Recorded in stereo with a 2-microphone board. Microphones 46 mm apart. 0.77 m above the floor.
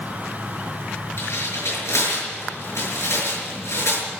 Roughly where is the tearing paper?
Left.